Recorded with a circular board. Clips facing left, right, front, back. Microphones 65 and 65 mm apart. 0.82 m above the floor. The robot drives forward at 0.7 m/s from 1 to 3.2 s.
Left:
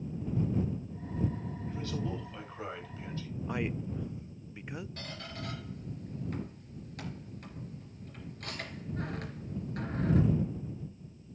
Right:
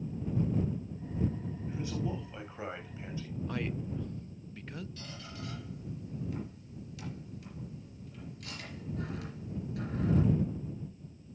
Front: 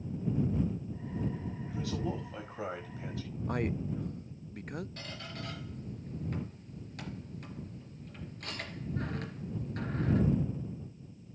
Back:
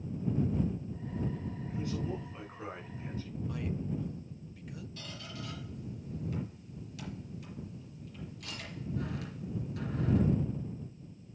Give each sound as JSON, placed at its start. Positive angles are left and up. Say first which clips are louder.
{"t": 1.7, "sound": "a man speaking", "louder": "right 1 dB, front 1 dB", "azimuth_deg": -15, "distance_m": 6.5}
{"t": 3.5, "sound": "a man speaking", "louder": "left 2 dB, front 5 dB", "azimuth_deg": 20, "distance_m": 0.5}
{"t": 5.0, "sound": "a squeak", "louder": "left 2 dB, front 1 dB", "azimuth_deg": 45, "distance_m": 3.5}